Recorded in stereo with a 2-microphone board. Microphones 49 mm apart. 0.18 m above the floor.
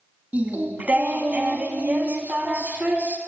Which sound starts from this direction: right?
Singing, at 0.3 s.